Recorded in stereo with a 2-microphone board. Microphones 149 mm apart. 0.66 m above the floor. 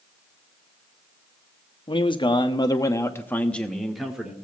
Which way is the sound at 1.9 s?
35° left (ahead or behind).